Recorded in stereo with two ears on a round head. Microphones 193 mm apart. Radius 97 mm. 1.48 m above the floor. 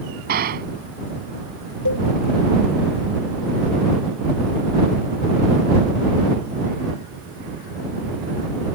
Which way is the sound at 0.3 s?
45° right (ahead or behind).